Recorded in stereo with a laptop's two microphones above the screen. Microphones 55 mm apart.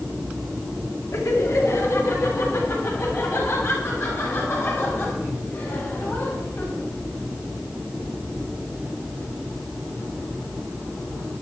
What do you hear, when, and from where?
1.1 s laughter: 65° left (ahead or behind), 2 m; by 6.8 s 45° left (ahead or behind), 6 m